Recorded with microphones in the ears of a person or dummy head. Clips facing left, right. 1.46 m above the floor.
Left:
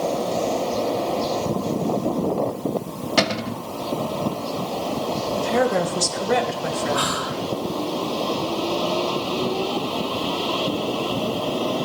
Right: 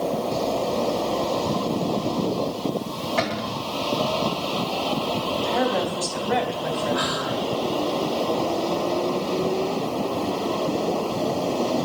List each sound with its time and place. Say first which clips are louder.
3.2 s a cupboard door: left 5 dB; 50° left (ahead or behind), 0.9 m
5.4 s a woman speaking: left 4 dB; 65° left (ahead or behind), 1.6 m
6.9 s whispering: even; 65° left (ahead or behind), 3.5 m